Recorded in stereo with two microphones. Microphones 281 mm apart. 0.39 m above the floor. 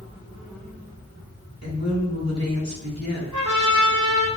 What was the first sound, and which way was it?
A woman speaking, 65° left (ahead or behind).